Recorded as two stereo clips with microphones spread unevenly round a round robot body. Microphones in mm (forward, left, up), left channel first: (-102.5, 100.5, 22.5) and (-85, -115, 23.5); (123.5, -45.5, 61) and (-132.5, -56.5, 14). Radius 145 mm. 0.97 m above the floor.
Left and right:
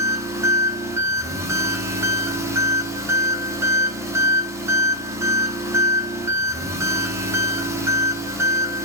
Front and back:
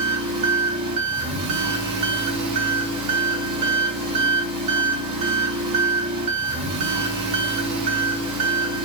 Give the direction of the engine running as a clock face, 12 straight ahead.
5 o'clock.